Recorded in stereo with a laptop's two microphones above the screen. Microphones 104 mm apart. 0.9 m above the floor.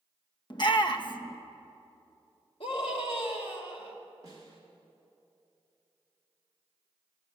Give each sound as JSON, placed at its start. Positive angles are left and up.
{"t": 0.5, "sound": "a shout", "side_deg": 45, "distance_m": 0.9}
{"t": 2.6, "sound": "a scream", "side_deg": 65, "distance_m": 2.5}
{"t": 4.2, "sound": "a snare drum", "side_deg": -40, "distance_m": 3.0}